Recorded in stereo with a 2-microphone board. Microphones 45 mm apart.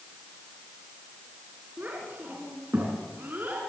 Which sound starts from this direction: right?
A child speaking, at 1.8 s.